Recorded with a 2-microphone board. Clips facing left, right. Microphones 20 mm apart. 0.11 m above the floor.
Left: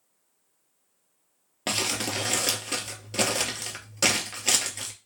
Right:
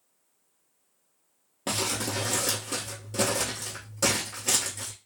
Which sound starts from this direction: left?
Crumpling, at 1.7 s.